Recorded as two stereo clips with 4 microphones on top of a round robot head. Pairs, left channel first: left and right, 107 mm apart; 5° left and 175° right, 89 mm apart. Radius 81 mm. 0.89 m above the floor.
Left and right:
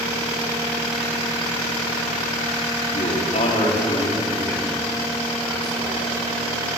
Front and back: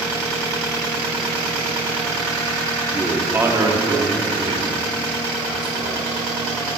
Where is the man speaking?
105° left, 2.5 m; by 6.2 s 175° right, 5 m.